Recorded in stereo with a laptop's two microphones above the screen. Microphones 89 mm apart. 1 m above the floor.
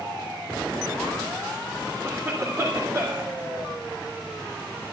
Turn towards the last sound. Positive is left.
turn(degrees=-35)  # may be behind; listen again after turning